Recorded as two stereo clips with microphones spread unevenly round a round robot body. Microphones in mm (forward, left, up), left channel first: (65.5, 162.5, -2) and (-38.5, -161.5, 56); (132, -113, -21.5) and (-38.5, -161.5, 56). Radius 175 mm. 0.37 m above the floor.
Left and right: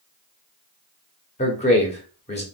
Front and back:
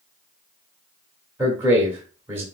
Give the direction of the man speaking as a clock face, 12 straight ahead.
9 o'clock.